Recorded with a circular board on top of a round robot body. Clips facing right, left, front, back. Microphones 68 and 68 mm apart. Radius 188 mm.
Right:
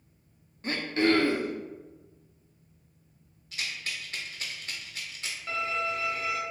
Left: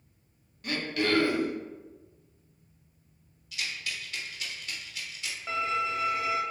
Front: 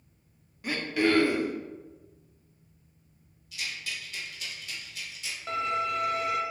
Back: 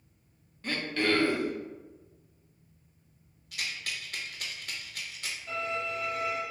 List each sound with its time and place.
0.6 s throat clearing: 70° right, 0.8 m
3.5 s a rattle: 140° right, 0.6 m
5.5 s a violin: 20° left, 0.7 m